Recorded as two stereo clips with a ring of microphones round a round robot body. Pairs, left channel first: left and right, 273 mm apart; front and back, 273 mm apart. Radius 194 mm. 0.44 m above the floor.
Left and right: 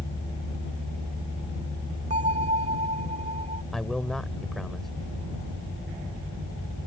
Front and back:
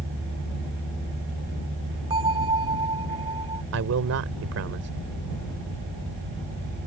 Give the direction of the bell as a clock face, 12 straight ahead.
4 o'clock.